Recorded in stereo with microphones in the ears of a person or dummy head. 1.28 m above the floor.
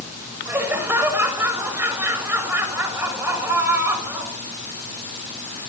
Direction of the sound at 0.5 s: 10° right (ahead or behind).